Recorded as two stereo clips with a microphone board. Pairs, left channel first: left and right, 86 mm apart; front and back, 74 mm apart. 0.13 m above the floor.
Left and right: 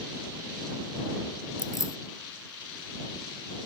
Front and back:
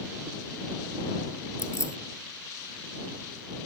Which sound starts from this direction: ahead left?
Keys jangling, at 1.6 s.